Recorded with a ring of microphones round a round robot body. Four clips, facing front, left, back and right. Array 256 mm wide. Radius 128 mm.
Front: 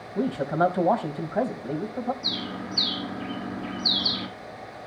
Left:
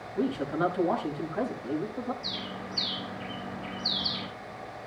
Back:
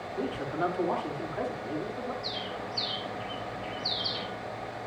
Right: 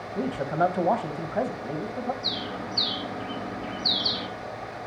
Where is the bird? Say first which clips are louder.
Right 5 dB, front 2 dB; 30° right, 3.5 m.